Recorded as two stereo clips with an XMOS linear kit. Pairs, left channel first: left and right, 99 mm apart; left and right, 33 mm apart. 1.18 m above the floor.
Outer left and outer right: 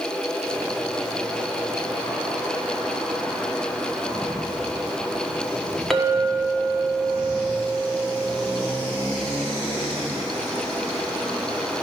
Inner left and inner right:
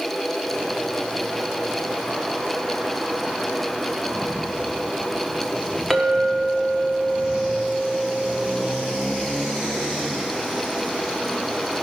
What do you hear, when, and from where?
5.9 s a clink: centre (ahead or behind), 1.1 m